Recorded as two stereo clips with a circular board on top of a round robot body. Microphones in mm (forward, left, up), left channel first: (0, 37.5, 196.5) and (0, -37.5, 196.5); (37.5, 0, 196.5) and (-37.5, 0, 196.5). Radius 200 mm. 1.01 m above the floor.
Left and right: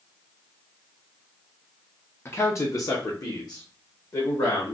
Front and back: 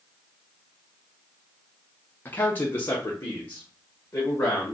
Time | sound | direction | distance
2.2 | a man speaking | 50° left | 0.8 m